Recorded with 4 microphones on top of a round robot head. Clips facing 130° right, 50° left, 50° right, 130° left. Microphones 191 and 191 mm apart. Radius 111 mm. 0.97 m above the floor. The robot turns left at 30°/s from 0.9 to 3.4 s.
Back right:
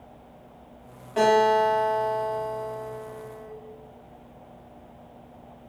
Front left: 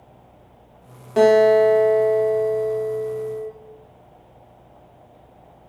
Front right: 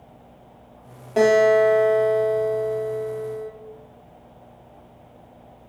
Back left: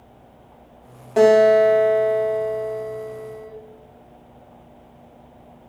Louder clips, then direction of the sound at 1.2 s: Front left 8 dB, back left 3 dB; 40° left.